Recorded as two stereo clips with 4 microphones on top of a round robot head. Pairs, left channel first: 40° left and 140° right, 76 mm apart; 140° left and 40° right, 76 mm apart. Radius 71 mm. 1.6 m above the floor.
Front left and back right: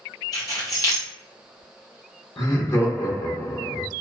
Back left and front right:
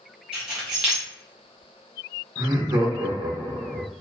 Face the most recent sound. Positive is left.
turn(degrees=-5)